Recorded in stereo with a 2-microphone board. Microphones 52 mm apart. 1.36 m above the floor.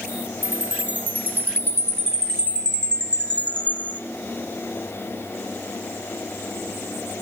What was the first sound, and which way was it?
A chime, 35° right (ahead or behind).